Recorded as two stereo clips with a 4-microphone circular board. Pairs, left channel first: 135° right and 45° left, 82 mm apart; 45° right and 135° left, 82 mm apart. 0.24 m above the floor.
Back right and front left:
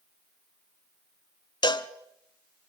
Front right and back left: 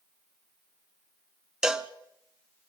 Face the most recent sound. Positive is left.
turn(degrees=-145)